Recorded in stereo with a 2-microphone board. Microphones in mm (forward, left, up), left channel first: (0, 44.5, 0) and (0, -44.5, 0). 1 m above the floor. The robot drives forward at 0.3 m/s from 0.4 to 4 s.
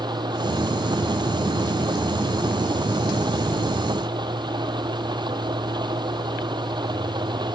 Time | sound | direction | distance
0.0 | an engine running | 55° right (ahead or behind) | ?